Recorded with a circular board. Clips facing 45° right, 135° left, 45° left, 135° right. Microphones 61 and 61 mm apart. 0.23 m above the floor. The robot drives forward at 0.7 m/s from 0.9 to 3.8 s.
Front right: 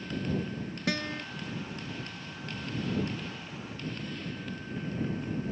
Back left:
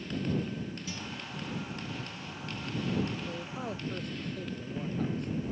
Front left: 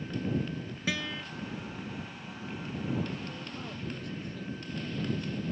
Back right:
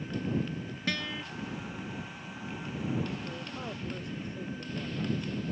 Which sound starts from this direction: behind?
A man speaking, at 3.3 s.